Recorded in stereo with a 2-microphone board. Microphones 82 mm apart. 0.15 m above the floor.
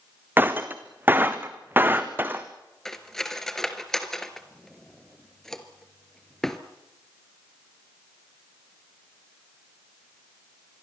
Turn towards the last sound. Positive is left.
turn(degrees=5)  # may be behind; listen again after turning